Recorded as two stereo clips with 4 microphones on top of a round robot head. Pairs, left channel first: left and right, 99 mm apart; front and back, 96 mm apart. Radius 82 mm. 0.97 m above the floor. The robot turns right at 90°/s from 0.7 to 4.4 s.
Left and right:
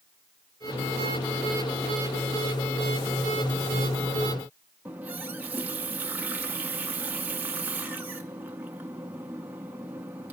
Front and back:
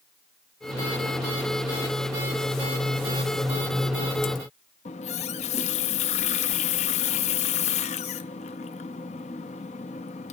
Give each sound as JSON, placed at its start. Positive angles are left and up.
{"t": 4.8, "sound": "a running tap", "azimuth_deg": -10, "distance_m": 0.5}